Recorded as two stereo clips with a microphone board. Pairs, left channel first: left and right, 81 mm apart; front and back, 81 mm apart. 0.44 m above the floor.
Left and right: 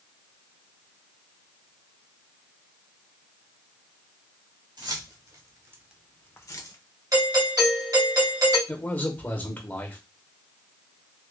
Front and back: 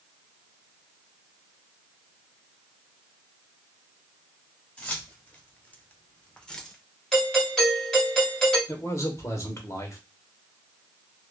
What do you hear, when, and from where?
4.8 s keys jangling: 75° right, 1.7 m; by 6.8 s 80° left, 1.1 m
7.1 s a doorbell: 85° right, 2 m
8.7 s a man speaking: 30° left, 1.1 m